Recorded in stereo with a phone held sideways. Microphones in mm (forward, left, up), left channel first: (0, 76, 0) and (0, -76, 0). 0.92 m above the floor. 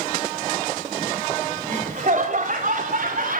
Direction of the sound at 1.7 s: 55° right (ahead or behind).